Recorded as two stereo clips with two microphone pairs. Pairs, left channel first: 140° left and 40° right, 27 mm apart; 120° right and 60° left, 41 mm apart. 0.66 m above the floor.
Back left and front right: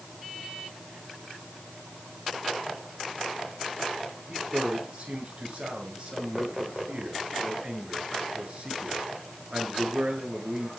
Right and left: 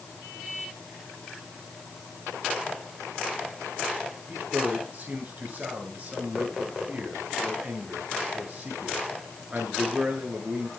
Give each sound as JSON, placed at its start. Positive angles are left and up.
{"t": 4.3, "sound": "a man speaking", "azimuth_deg": 10, "distance_m": 8.0}